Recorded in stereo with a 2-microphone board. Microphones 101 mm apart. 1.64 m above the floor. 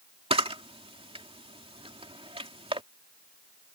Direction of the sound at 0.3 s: 70° right (ahead or behind).